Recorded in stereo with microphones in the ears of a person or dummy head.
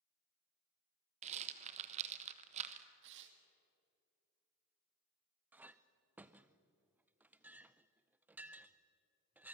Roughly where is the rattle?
Right.